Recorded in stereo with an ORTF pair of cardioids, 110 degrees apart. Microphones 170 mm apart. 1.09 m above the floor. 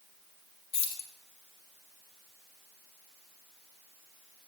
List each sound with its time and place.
0.7 s keys jangling: 35° left, 1.7 m